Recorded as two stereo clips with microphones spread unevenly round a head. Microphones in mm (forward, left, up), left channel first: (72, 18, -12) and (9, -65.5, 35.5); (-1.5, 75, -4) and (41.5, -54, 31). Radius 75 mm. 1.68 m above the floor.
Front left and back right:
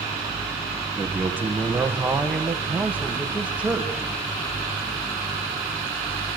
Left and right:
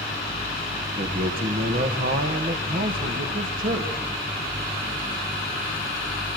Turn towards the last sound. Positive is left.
turn(degrees=-50)